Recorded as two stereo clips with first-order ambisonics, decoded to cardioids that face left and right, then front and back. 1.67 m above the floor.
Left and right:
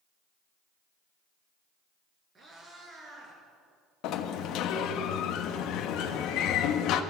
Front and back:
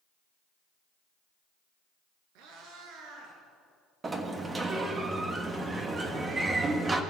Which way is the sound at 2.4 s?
160° right.